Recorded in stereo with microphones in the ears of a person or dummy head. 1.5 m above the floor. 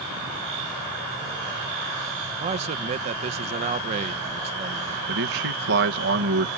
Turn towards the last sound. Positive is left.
turn(degrees=-60)  # may be behind; listen again after turning